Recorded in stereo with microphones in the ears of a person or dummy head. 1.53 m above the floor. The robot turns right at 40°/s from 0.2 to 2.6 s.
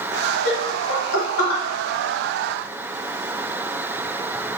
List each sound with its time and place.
0.5 s laughter: 55° left (ahead or behind), 1.4 m; by 1.6 s 75° left (ahead or behind), 1.4 m